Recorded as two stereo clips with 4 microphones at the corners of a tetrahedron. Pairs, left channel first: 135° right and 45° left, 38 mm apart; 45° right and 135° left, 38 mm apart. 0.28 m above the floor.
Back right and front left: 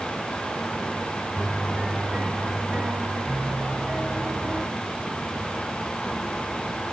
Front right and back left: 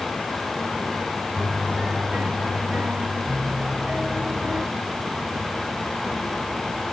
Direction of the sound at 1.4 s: 100° left.